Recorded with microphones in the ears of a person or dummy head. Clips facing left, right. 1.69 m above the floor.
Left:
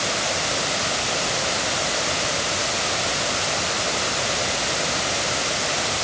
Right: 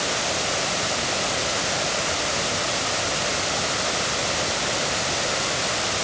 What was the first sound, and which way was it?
Only background noise.